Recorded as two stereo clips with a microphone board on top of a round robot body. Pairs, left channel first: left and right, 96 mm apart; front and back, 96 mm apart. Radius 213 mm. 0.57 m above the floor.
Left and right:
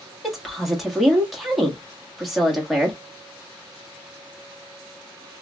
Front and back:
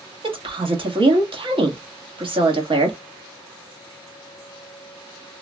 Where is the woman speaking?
Straight behind, 1.6 m.